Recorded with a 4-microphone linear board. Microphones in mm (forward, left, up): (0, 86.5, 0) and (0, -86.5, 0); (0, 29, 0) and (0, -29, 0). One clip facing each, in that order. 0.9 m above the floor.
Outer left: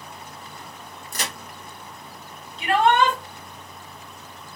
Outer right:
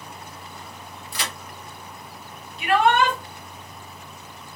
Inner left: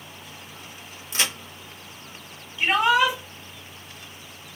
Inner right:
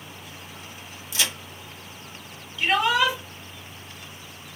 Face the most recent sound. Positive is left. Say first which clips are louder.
# even, inner left 2 dB
turn(degrees=35)  # may be behind; listen again after turning